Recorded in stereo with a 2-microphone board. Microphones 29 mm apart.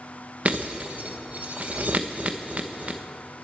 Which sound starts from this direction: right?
Breaking glass, at 0.5 s.